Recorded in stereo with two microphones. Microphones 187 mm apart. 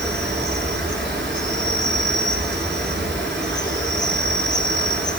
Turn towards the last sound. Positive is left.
turn(degrees=-85)